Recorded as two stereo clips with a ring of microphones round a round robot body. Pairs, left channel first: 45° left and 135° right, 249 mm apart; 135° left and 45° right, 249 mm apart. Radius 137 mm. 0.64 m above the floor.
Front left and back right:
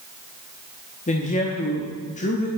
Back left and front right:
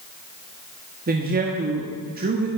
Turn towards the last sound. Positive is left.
turn(degrees=-5)